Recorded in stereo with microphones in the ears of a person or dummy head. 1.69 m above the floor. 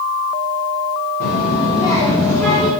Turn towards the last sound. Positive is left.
turn(degrees=5)  # may be behind; listen again after turning